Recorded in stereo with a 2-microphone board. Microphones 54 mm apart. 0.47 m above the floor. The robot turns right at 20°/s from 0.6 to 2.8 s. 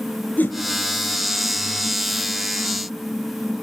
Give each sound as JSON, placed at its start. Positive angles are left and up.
{"t": 0.4, "sound": "a whoosh", "side_deg": 30, "distance_m": 3.5}